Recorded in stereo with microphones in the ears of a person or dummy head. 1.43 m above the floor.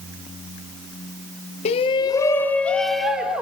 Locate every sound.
1.6 s a shout: 45° left (ahead or behind), 1.2 m; by 3.4 s 5° left (ahead or behind), 2 m